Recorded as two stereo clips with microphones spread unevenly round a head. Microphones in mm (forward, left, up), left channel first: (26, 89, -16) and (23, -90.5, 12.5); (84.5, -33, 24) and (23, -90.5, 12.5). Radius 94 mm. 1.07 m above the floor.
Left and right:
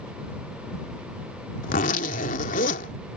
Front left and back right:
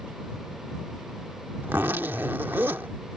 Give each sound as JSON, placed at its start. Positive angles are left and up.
{"t": 1.6, "sound": "a zipper", "azimuth_deg": 140}